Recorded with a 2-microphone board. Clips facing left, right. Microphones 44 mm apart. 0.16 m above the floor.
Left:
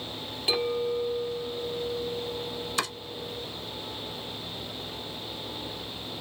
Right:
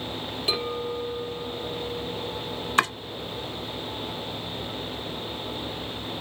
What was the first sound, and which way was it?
A clink, centre (ahead or behind).